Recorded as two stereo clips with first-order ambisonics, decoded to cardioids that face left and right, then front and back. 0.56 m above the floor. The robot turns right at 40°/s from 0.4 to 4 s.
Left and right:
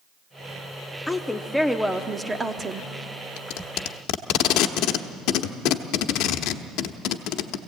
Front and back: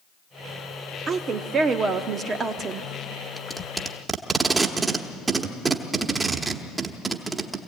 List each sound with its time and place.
1.1 s a woman speaking: 155° left, 0.8 m; by 2.9 s 130° right, 0.8 m
3.4 s tape being pulled: 80° left, 0.9 m; by 7.6 s 105° left, 0.9 m